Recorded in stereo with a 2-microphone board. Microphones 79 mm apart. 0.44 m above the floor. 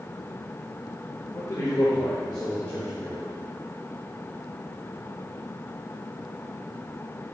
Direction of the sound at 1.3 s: 35° left (ahead or behind).